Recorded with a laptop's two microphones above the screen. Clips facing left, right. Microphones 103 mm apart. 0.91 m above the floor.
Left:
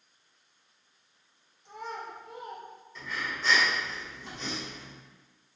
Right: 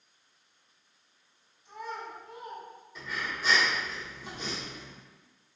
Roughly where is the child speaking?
Left.